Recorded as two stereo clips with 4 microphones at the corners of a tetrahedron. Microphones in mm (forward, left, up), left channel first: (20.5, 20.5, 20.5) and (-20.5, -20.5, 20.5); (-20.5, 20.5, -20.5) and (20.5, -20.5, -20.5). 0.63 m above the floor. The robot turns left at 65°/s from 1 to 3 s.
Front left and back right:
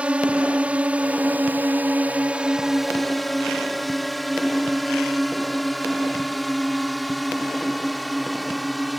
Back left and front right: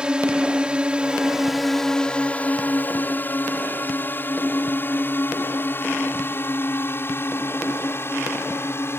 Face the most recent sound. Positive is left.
turn(degrees=135)